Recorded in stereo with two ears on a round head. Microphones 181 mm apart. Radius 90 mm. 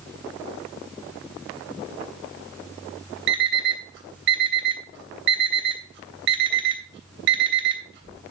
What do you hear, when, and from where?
3.3 s an alarm clock: 60° right (ahead or behind), 3 m